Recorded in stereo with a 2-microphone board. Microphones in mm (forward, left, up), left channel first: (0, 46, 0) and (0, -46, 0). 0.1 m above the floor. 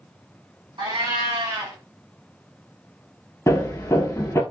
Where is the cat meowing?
60° right (ahead or behind), 2 m.